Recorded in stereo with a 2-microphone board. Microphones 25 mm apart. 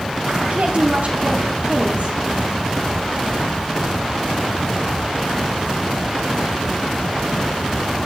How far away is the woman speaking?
About 2 m.